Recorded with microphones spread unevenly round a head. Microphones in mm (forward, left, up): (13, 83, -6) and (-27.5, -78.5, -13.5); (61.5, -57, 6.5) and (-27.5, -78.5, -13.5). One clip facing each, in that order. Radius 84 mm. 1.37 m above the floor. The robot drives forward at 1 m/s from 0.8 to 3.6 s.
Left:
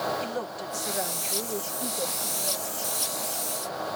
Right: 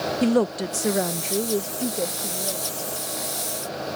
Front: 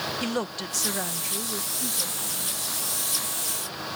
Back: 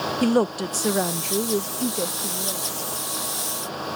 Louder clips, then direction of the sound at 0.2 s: Right 12 dB, back 12 dB; 125° right.